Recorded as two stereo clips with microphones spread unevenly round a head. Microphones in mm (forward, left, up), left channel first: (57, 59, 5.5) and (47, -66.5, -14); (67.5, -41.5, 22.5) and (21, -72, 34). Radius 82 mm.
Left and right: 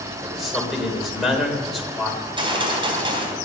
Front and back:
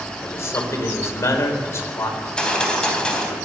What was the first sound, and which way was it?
A man speaking, 5° right.